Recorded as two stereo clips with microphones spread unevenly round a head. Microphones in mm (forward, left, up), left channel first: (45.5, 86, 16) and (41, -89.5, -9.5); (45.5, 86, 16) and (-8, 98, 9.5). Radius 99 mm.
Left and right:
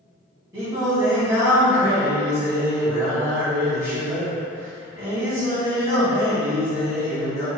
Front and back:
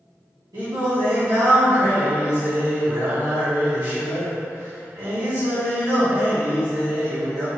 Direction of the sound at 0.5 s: 170° right.